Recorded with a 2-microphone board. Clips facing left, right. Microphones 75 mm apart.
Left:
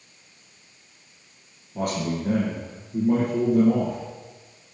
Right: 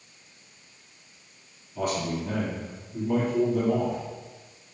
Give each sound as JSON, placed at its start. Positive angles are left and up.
{"t": 1.8, "sound": "a man speaking", "side_deg": 65, "distance_m": 3.0}